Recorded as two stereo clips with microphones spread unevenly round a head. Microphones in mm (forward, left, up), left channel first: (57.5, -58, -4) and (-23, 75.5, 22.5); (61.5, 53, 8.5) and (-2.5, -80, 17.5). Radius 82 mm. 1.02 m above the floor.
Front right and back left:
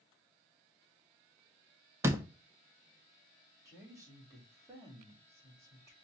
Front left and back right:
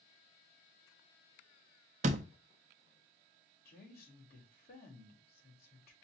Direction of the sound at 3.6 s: 50° left.